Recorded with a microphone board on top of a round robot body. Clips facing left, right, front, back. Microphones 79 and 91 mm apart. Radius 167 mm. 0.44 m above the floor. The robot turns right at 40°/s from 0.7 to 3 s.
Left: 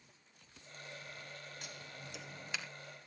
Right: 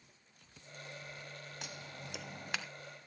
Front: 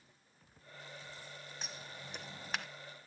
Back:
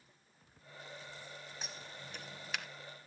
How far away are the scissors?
About 1.0 m.